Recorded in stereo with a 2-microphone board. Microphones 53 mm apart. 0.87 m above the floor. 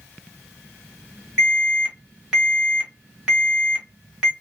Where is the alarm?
10° right (ahead or behind), 1.4 m.